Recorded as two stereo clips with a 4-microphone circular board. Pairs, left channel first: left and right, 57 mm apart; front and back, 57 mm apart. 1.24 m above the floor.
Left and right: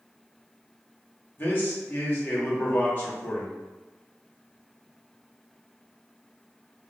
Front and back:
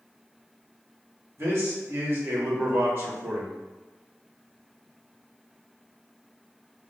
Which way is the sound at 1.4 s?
140° left.